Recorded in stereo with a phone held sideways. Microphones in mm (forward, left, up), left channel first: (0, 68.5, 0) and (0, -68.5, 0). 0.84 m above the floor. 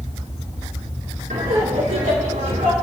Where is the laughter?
70° right (ahead or behind), 2.5 m; by 2.7 s 75° right (ahead or behind), 3.5 m.